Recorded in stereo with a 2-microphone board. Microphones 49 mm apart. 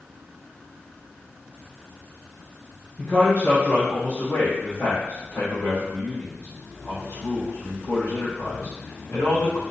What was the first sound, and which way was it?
A man speaking, 40° left (ahead or behind).